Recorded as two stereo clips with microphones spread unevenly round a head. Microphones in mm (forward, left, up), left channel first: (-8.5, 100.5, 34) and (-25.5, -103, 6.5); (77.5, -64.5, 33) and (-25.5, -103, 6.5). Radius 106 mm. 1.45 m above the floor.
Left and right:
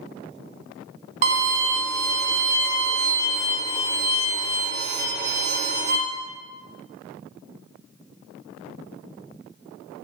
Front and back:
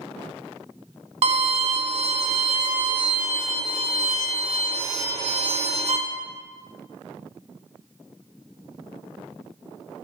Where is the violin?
145° right, 0.6 m.